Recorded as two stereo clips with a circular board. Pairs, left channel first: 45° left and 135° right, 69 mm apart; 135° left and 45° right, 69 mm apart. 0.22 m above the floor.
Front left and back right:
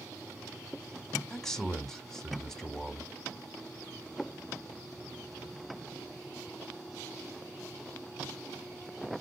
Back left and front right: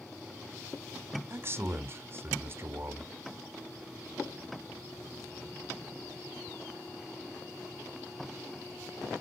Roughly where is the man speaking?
Ahead right.